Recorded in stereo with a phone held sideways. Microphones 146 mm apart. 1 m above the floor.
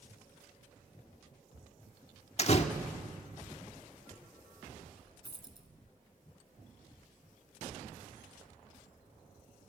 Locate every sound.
2.4 s a door slam: 45° left (ahead or behind), 1.3 m
5.2 s a dropped coin: 35° right (ahead or behind), 1.7 m